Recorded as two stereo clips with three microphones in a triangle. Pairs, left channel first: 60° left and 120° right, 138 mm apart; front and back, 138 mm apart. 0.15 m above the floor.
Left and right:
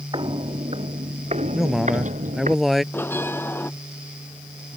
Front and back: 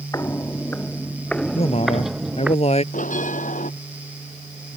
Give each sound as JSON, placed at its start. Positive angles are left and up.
{"t": 0.1, "sound": "footsteps", "azimuth_deg": -65}
{"t": 1.6, "sound": "a man speaking", "azimuth_deg": -30}
{"t": 2.9, "sound": "a bell", "azimuth_deg": -15}